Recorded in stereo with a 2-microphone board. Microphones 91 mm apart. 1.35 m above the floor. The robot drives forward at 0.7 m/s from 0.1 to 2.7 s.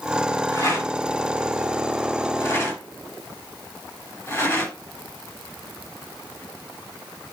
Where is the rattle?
35° left (ahead or behind), 7 m; by 4.7 s 30° left (ahead or behind), 8 m.